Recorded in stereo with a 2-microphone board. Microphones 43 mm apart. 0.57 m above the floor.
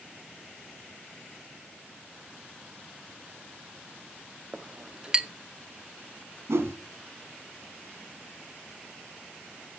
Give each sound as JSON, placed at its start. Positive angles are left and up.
{"t": 4.5, "sound": "a clink", "side_deg": -20, "distance_m": 0.6}
{"t": 6.5, "sound": "a whoosh", "side_deg": -80, "distance_m": 1.2}